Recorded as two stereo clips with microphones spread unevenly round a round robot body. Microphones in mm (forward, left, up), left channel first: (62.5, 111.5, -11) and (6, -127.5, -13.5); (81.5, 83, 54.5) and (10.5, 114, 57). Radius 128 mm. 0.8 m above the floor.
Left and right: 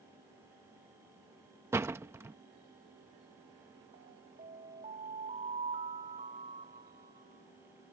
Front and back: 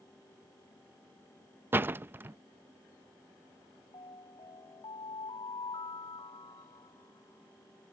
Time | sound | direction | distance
1.7 | a door slam | 170° right | ?
3.9 | an alarm | 45° right | ?